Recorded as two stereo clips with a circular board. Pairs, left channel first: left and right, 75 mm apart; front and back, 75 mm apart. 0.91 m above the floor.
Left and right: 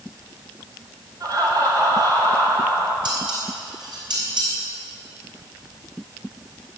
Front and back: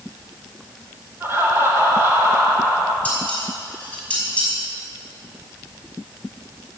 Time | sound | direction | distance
1.2 | laughter | 125° right | 3.5 m
3.0 | dishes clattering | 70° right | 5.5 m